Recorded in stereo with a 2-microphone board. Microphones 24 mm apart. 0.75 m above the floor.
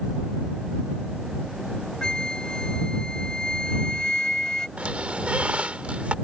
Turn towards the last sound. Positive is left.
turn(degrees=-65)  # may be behind; listen again after turning